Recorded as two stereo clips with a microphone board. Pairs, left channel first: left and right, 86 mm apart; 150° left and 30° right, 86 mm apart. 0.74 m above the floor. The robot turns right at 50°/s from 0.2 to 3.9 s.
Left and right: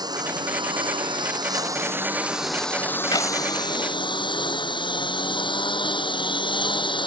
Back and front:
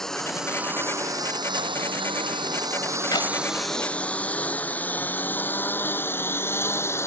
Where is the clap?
120° left; by 3.3 s 130° left.